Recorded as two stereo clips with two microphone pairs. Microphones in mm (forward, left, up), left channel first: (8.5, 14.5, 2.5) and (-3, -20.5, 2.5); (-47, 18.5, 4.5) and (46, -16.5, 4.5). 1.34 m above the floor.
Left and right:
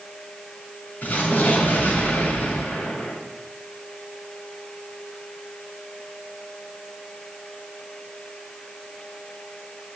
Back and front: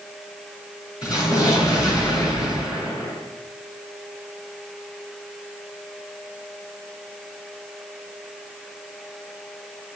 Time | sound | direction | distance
1.0 | an explosion | 110° left | 6.5 m